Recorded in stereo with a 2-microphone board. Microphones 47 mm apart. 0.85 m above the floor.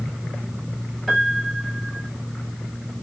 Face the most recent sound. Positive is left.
turn(degrees=0)  # may be behind; listen again after turning